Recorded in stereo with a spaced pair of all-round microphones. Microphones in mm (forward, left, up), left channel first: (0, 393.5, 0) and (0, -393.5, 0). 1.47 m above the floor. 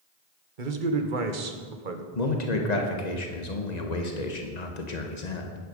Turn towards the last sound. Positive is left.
turn(degrees=60)  # may be behind; listen again after turning